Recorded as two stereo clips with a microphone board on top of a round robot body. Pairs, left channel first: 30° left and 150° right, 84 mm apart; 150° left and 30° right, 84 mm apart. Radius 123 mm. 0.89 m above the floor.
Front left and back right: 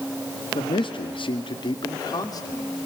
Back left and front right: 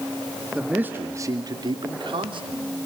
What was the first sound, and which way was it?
A man speaking, 50° left.